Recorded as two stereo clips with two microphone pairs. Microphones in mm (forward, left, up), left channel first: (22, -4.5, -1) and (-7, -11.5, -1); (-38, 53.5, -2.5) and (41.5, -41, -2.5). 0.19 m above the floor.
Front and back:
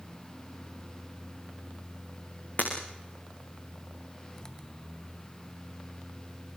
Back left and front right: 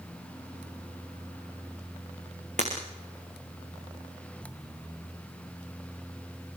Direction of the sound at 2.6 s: 25° right.